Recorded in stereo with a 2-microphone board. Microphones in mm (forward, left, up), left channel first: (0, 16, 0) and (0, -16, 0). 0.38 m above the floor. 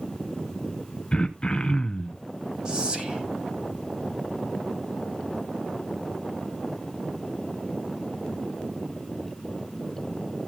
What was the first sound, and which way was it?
Throat clearing, 30° left (ahead or behind).